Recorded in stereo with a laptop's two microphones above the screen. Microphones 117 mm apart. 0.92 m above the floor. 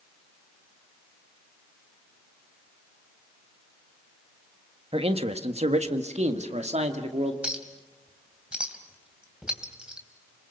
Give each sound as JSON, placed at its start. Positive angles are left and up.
{"t": 4.9, "sound": "a man speaking", "side_deg": -55, "distance_m": 1.3}
{"t": 7.4, "sound": "a clink", "side_deg": -10, "distance_m": 3.0}